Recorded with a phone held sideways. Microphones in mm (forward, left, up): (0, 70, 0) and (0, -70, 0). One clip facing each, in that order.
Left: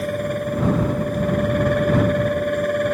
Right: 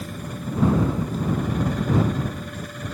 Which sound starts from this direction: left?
A fan, at 0.0 s.